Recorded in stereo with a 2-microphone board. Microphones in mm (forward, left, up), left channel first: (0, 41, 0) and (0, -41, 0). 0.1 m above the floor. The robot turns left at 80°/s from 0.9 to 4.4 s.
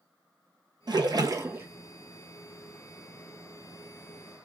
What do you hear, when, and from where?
0.9 s a splash: 85° right, 0.5 m; by 1.7 s 150° right, 0.5 m